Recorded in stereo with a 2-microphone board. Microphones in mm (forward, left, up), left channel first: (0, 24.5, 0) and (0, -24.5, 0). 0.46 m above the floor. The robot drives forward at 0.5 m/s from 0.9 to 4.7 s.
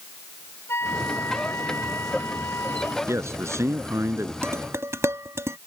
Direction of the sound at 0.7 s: 60° left (ahead or behind).